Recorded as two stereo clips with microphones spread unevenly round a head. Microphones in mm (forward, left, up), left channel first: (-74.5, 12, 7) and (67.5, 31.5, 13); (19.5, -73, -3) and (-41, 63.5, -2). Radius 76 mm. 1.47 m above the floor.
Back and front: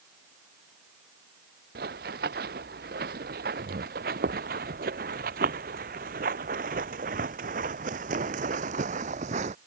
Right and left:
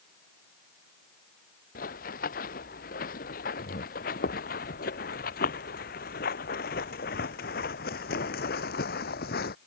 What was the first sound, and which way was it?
Running footsteps, 25° right.